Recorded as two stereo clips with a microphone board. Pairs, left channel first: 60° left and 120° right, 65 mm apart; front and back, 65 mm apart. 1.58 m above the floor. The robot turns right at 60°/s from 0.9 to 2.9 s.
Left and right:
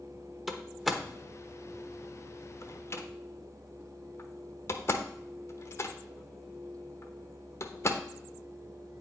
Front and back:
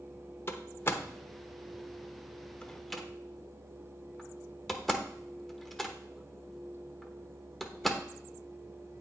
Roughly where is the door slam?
Ahead right.